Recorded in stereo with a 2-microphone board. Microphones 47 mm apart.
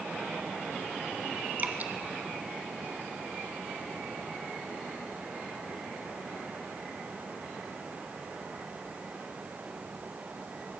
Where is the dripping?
35° right (ahead or behind), 1.8 m.